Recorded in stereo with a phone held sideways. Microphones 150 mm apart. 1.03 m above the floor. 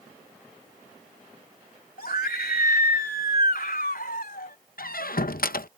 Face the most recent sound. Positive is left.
turn(degrees=75)  # may be behind; listen again after turning